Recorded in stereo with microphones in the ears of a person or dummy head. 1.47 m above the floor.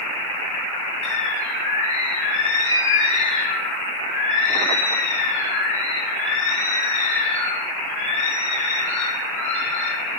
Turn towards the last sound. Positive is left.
turn(degrees=30)  # may be behind; listen again after turning